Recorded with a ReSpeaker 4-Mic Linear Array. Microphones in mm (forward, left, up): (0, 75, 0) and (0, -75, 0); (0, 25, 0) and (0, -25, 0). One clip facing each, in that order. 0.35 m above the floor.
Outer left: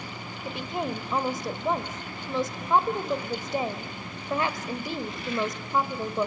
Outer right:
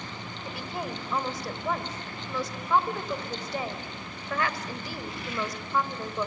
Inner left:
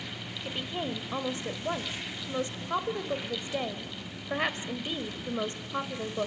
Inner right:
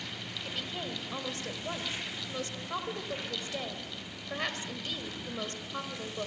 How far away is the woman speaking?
About 1.3 m.